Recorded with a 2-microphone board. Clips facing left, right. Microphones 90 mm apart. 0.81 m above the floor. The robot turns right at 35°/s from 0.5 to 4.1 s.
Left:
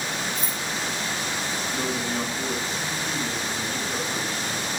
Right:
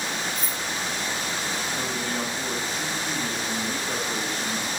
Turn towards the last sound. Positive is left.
turn(degrees=-130)